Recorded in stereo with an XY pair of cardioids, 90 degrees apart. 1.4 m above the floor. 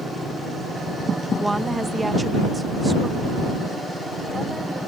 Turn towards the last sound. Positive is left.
turn(degrees=-15)